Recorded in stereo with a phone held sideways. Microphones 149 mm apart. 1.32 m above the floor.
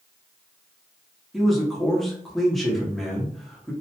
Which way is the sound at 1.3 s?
Centre (ahead or behind).